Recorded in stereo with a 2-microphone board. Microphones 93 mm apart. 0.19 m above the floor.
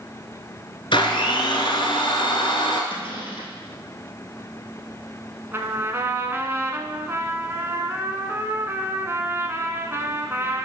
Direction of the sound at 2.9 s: 65° left (ahead or behind).